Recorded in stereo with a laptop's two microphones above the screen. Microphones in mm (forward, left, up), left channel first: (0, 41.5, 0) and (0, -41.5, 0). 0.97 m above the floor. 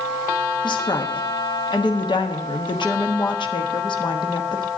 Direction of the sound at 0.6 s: 70° left (ahead or behind).